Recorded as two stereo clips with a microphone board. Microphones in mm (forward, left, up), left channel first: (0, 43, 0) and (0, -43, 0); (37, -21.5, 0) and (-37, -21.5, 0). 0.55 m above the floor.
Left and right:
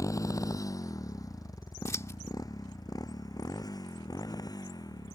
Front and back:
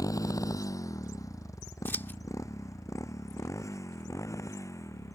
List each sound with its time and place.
0.0 s a motorcycle: 40° left; by 5.2 s 50° left
1.9 s scissors: 50° left